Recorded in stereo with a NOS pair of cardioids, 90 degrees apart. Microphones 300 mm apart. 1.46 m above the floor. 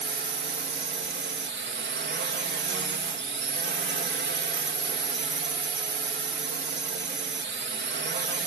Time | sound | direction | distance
0.0 | a drone | 40° right | ?